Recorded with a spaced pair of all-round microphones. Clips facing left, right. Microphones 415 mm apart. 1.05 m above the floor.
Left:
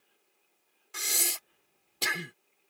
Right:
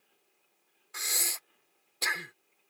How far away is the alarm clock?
No alarm clock in this recording.